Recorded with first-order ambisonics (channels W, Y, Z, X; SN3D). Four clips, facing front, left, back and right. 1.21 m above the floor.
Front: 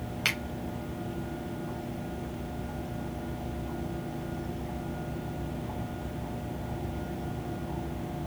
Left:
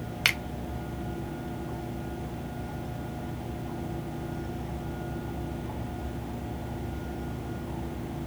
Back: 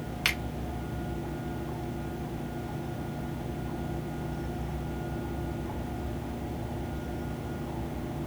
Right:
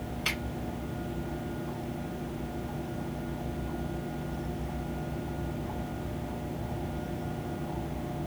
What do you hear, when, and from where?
0.2 s a finger snap: 95° left, 1.0 m